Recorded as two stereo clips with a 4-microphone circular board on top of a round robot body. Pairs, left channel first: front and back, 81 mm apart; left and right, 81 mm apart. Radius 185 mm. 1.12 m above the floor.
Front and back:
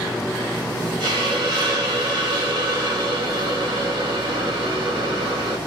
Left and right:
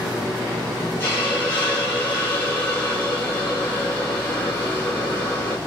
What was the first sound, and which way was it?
A hiss, 160° left.